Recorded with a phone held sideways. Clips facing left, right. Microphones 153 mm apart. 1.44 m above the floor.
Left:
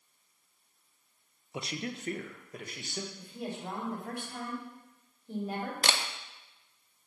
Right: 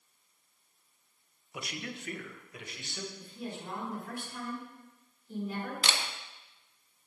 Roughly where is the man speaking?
Left.